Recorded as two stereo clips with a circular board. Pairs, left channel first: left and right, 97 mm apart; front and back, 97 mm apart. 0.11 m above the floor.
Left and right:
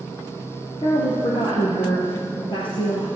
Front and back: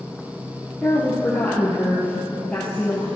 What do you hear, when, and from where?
0.8 s a woman speaking: 75° left, 2 m